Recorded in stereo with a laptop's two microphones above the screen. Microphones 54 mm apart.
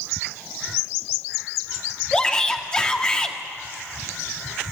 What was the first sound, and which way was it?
A shout, 20° left (ahead or behind).